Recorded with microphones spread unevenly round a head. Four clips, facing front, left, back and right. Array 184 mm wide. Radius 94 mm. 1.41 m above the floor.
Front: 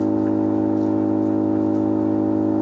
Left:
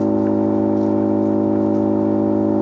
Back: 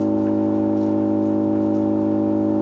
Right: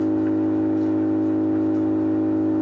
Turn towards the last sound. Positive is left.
turn(degrees=90)